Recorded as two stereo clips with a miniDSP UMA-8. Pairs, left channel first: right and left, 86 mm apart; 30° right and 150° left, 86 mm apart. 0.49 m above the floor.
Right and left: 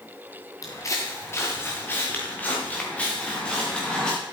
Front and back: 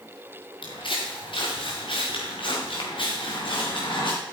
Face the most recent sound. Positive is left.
turn(degrees=-10)